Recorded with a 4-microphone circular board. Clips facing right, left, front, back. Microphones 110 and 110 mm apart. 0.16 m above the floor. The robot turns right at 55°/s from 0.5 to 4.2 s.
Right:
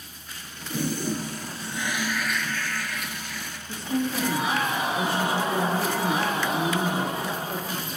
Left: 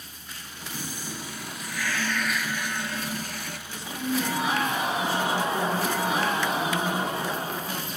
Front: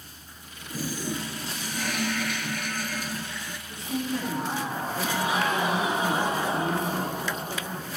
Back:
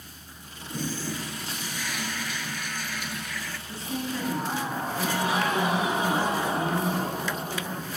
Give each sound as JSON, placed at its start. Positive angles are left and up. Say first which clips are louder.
{"t": 0.7, "sound": "a toilet flushing", "louder": "right 10 dB, front 1 dB", "azimuth_deg": -90, "distance_m": 0.7}
{"t": 3.7, "sound": "a woman speaking", "louder": "right 3 dB, front 3 dB", "azimuth_deg": -100, "distance_m": 5.0}